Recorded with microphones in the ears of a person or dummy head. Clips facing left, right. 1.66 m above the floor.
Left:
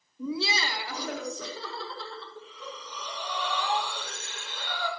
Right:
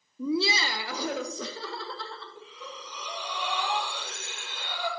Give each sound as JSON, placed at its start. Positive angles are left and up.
{"t": 0.2, "sound": "laughter", "side_deg": -80, "distance_m": 0.8}
{"t": 2.4, "sound": "breathing", "side_deg": -5, "distance_m": 2.5}